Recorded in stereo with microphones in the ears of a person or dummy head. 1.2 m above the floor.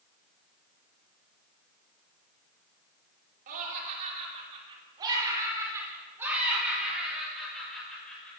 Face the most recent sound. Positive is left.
turn(degrees=5)  # may be behind; listen again after turning